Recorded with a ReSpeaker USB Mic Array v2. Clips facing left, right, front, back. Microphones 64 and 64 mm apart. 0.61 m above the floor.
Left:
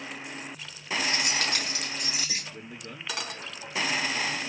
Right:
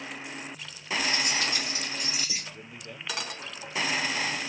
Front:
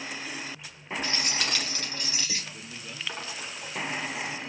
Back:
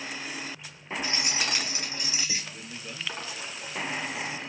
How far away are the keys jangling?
About 3 m.